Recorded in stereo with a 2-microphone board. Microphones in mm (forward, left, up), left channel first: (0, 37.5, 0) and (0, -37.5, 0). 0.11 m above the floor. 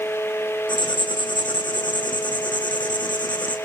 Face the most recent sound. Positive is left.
turn(degrees=80)